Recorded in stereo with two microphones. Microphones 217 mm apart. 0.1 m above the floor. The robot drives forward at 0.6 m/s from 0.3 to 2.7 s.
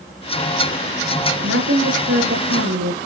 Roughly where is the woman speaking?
Right.